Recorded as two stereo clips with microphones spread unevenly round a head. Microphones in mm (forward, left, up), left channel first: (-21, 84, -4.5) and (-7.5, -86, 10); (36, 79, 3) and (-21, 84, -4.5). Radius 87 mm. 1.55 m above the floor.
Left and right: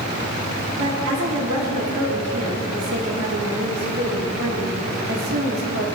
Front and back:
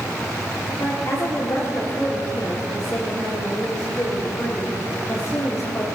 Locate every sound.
0.8 s a woman speaking: 75° right, 4 m